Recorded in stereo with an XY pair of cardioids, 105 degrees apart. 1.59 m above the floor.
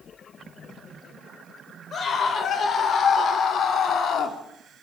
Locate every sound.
1.9 s a scream: 50° left, 6 m; by 4.4 s 65° left, 3.5 m